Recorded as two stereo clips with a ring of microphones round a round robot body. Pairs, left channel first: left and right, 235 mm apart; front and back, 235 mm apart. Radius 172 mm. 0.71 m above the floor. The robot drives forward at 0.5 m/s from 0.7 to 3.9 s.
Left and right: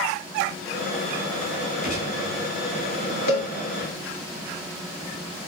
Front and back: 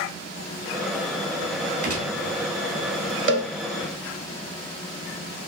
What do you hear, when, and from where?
1.8 s a gunshot: 155° left, 1.8 m; by 2.2 s 160° left, 2.0 m
3.3 s a cowbell: 155° left, 0.9 m